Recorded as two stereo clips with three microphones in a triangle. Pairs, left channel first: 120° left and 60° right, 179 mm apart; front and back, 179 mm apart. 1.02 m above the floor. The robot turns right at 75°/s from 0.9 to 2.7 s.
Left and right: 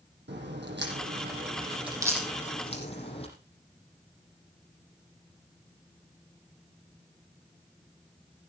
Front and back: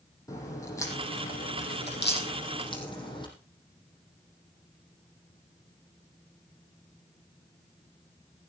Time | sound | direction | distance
0.3 | a crack | 70° right | 7 m